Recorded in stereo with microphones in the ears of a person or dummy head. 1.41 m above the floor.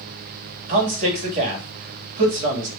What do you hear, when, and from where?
0.7 s a man speaking: 40° right (ahead or behind), 2 m